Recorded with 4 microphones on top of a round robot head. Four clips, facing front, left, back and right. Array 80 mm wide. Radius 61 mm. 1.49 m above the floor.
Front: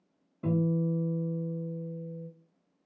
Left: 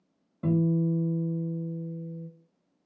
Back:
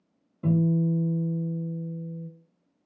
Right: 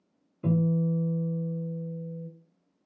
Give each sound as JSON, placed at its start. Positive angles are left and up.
{"t": 0.4, "sound": "a guitar", "azimuth_deg": 85, "distance_m": 2.0}